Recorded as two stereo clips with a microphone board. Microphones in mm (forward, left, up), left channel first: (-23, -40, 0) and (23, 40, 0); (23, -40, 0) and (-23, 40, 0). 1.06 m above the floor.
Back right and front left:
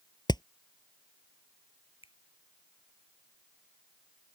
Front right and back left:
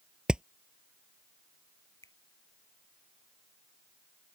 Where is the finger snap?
115° right.